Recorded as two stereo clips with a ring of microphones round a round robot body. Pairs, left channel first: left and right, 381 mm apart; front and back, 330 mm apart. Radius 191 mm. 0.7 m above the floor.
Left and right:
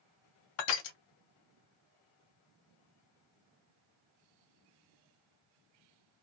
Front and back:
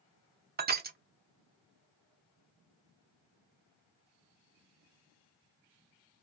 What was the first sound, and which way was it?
Crushing, 115° left.